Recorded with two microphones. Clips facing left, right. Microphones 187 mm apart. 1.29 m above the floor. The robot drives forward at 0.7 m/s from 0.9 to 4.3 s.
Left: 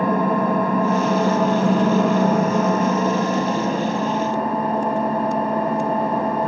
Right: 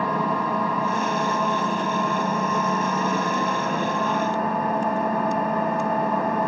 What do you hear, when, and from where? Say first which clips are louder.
0.0 s an engine running: left 6 dB; 50° left (ahead or behind), 1.2 m; by 6.5 s 30° left (ahead or behind), 1.9 m